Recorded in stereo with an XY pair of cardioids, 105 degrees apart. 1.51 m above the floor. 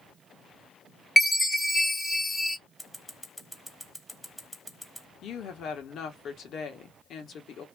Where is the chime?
5° left, 1.2 m.